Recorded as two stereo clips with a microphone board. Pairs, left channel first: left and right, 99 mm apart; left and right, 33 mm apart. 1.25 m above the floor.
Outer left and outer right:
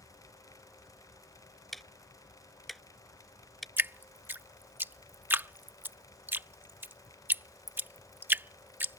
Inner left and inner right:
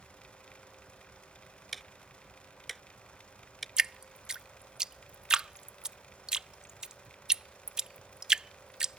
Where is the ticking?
Centre (ahead or behind).